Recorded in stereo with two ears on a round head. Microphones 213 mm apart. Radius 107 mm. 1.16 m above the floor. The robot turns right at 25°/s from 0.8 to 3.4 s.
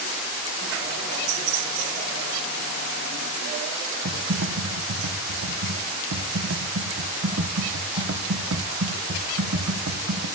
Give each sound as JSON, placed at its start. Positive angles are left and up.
{"t": 4.0, "sound": "typing on a keyboard", "side_deg": -55, "distance_m": 0.8}